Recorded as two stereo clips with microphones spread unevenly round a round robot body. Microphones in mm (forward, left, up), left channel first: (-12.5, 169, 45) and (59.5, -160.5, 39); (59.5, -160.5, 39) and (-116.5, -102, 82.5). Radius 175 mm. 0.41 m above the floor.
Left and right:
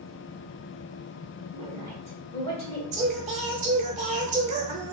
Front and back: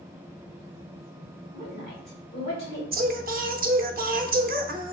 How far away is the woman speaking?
About 1.9 m.